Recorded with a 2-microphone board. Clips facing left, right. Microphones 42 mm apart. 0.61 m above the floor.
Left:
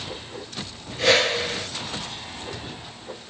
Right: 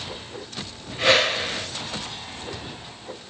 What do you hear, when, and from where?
1.0 s a whoosh: 15° right (ahead or behind), 2.5 m